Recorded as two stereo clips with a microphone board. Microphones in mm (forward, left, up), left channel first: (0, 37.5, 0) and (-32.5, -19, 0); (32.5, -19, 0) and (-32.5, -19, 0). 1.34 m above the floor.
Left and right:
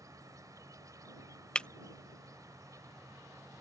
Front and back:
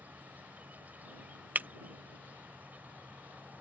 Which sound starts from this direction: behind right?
An insect, at 0.0 s.